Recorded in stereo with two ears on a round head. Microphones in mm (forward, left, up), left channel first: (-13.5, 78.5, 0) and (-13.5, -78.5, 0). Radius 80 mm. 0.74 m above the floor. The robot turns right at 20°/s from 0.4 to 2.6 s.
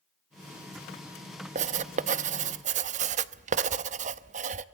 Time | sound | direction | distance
1.6 | writing | 40° right (ahead or behind) | 0.7 m